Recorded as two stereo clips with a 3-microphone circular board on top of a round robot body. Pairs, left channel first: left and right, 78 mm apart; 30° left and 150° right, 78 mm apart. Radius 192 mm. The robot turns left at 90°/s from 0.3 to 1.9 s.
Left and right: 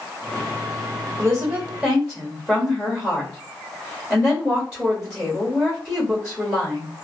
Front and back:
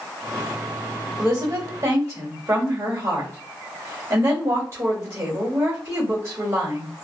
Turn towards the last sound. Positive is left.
turn(degrees=-170)